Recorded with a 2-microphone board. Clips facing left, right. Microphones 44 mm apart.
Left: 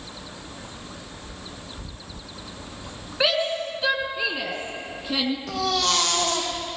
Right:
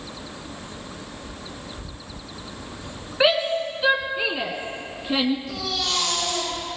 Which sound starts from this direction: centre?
A shout, at 3.2 s.